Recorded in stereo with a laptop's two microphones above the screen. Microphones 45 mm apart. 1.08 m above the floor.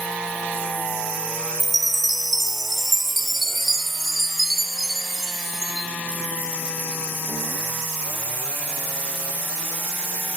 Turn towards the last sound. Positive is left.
turn(degrees=-5)  # may be behind; listen again after turning